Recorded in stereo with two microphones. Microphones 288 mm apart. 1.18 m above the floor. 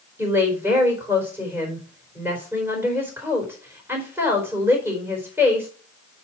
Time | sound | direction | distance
0.2 | a woman speaking | 10° right (ahead or behind) | 4.5 m